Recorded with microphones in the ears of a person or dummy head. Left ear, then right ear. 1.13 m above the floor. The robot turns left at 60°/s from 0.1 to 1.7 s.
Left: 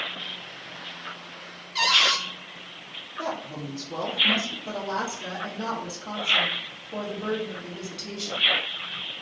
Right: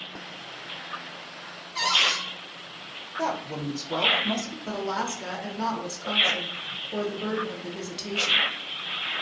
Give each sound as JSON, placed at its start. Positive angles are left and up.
{"t": 1.8, "sound": "a cupboard door", "side_deg": 30, "distance_m": 1.2}
{"t": 3.2, "sound": "a woman speaking", "side_deg": -60, "distance_m": 0.6}
{"t": 4.7, "sound": "a woman speaking", "side_deg": -30, "distance_m": 0.6}